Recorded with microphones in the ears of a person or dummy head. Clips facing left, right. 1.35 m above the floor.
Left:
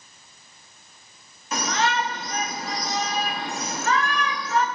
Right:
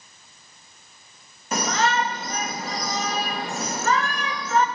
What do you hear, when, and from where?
1.5 s a shout: 40° right (ahead or behind), 2.0 m